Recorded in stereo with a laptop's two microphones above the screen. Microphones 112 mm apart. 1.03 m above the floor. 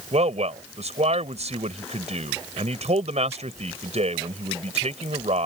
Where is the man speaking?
75° right (ahead or behind).